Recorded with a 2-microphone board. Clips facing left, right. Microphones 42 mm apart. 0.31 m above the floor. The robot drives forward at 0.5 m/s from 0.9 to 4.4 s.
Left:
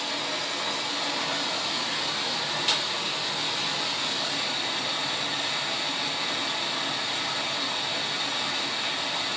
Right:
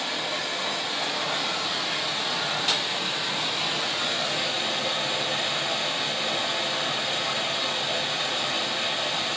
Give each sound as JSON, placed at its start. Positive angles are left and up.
{"t": 0.0, "sound": "running water", "side_deg": -35, "distance_m": 4.0}